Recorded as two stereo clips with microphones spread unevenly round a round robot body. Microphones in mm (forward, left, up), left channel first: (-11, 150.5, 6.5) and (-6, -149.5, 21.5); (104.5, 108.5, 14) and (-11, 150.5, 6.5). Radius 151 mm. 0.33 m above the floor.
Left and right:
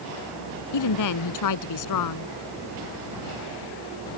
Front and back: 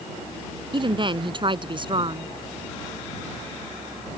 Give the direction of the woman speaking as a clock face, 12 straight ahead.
8 o'clock.